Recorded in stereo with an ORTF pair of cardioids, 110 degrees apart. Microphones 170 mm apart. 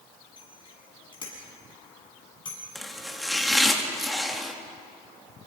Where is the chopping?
Straight ahead, 3 m.